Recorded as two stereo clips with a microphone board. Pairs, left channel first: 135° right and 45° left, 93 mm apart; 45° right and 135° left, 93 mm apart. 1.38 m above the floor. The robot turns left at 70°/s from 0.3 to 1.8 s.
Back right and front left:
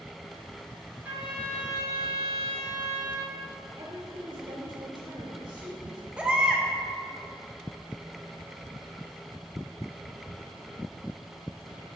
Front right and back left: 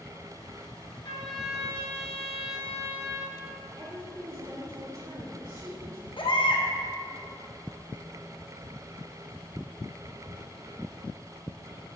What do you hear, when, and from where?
1.0 s a trumpet: 25° right, 2.5 m; by 3.4 s 80° right, 2.5 m
3.8 s a woman speaking: 85° left, 3 m
6.2 s a baby crying: 35° right, 0.9 m